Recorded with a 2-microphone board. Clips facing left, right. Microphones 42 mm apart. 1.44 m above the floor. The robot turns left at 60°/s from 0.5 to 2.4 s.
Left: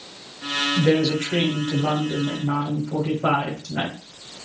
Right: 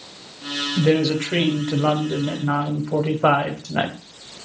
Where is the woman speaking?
Straight ahead, 0.9 m; by 3.9 s 95° right, 0.9 m.